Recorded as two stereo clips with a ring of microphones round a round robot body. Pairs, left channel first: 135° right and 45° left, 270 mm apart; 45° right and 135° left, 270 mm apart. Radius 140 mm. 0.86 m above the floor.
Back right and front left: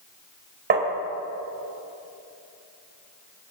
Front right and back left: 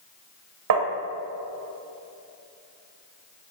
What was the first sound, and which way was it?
Tapping, 100° left.